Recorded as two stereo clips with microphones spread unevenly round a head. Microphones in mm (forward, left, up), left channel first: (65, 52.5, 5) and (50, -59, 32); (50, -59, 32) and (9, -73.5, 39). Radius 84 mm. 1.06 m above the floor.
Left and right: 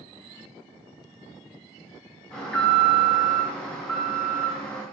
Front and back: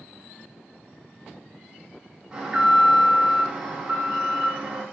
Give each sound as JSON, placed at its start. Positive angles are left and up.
{"t": 2.3, "sound": "an alarm", "azimuth_deg": 135, "distance_m": 0.9}